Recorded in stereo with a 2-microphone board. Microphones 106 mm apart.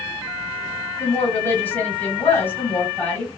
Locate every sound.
1.0 s a woman speaking: 15° left (ahead or behind), 1.7 m